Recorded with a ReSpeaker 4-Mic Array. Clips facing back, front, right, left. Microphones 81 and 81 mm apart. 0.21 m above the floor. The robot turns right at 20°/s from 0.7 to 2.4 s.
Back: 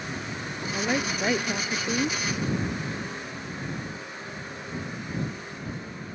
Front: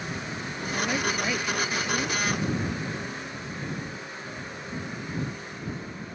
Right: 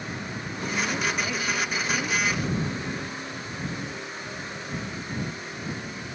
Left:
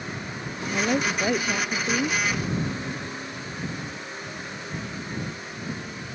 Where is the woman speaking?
110° left; by 2.2 s 135° left.